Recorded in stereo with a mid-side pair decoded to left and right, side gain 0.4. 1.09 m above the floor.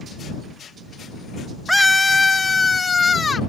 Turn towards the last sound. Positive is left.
turn(degrees=35)